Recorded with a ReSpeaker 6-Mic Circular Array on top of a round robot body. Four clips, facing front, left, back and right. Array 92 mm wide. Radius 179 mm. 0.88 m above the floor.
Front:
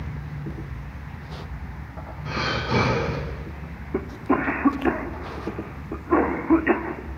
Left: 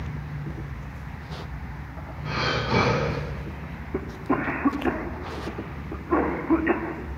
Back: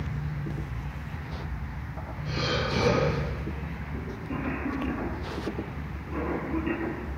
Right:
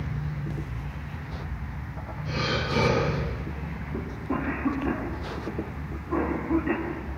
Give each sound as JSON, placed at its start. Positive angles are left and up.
{"t": 2.2, "sound": "breathing", "azimuth_deg": 55, "distance_m": 8.5}
{"t": 3.9, "sound": "a cough", "azimuth_deg": 25, "distance_m": 3.0}